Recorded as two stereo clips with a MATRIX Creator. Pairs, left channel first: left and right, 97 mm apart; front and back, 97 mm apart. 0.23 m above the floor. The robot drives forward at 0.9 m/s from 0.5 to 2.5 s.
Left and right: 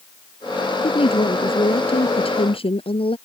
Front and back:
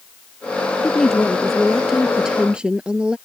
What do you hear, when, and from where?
0.8 s a woman speaking: 80° left; by 3.2 s 100° left